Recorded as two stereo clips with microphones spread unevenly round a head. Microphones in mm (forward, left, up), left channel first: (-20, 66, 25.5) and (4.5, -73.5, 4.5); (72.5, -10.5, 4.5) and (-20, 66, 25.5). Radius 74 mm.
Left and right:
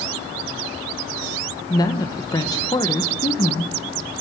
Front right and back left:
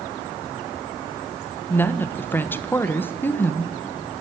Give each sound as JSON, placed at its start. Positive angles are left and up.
{"t": 1.7, "sound": "a woman speaking", "azimuth_deg": 35, "distance_m": 1.4}